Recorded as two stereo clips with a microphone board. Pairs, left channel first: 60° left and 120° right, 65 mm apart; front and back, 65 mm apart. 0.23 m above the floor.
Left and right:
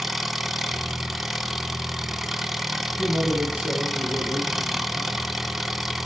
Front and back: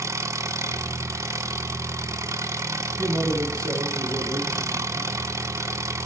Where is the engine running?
155° left, 0.7 m.